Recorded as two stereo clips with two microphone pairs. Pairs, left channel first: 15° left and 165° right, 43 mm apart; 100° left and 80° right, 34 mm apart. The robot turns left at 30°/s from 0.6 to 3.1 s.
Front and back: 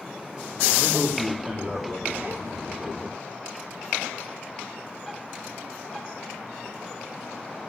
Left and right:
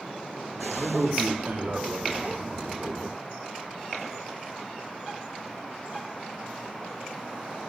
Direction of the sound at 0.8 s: 85° right.